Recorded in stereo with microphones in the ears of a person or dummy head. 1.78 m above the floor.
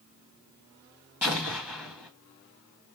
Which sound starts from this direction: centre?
An explosion, at 1.2 s.